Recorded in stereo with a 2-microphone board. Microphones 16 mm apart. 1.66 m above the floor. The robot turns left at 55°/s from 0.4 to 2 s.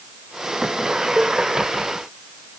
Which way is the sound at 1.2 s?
30° left (ahead or behind).